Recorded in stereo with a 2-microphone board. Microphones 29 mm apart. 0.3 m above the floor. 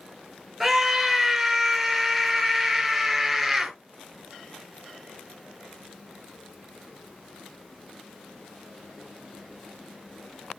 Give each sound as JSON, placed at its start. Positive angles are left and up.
{"t": 0.6, "sound": "a scream", "side_deg": -5, "distance_m": 4.5}